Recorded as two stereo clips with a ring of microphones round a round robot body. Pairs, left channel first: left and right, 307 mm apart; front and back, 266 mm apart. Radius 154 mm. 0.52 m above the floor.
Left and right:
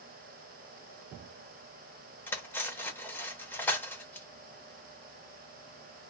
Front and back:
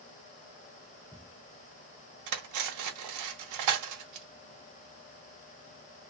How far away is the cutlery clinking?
About 0.7 m.